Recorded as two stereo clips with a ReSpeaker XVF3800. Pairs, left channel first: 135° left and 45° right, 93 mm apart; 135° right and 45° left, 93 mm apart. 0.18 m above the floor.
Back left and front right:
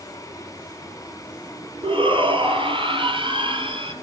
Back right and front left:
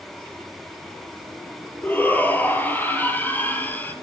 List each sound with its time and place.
1.8 s a shout: 65° right, 4 m